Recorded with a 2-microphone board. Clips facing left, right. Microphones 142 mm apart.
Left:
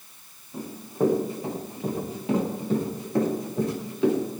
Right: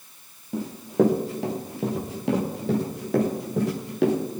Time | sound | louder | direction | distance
0.5 | running footsteps | right 8 dB | 85° right | 4.5 m